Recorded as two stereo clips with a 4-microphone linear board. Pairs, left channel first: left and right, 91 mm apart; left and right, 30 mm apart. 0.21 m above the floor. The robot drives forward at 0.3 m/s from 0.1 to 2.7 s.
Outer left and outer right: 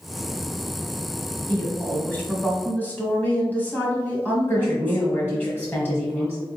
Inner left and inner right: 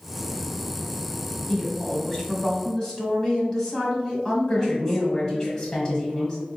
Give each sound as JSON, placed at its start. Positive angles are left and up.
{"t": 1.5, "sound": "a woman speaking", "side_deg": 20, "distance_m": 1.0}
{"t": 4.5, "sound": "a woman speaking", "side_deg": 20, "distance_m": 1.0}